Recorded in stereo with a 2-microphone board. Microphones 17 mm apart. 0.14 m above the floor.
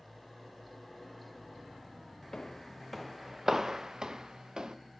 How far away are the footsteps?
About 0.6 m.